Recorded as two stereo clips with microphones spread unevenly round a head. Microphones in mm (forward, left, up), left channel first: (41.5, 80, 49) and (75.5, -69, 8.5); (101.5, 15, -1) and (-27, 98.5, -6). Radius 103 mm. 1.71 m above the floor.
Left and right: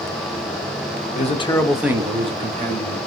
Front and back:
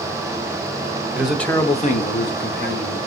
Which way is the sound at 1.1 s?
65° left.